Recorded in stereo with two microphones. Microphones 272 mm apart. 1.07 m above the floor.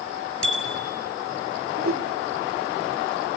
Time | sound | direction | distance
0.4 | a bicycle bell | 50° right (ahead or behind) | 6 m
1.8 | a whoosh | 55° right (ahead or behind) | 2.0 m